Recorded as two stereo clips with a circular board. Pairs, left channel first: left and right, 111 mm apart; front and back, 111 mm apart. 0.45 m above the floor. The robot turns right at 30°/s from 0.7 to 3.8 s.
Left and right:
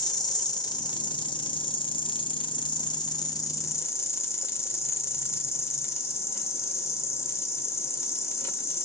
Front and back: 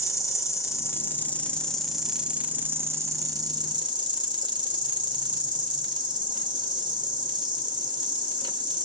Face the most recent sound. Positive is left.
turn(degrees=145)